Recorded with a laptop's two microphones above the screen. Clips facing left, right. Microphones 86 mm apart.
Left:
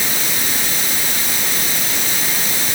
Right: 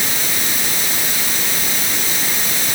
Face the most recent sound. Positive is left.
No sound to turn to.